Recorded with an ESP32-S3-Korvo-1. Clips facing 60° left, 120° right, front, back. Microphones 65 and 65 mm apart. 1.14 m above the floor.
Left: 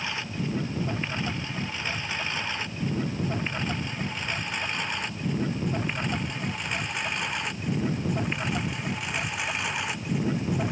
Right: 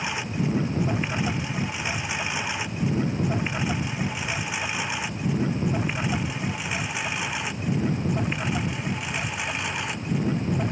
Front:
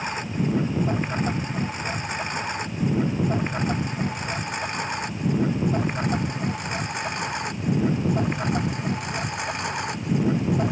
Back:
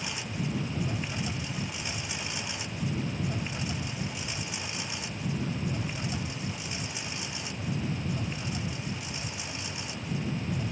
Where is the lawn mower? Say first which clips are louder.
Right 4 dB, front 8 dB; 45° right; by 10.7 s 30° right.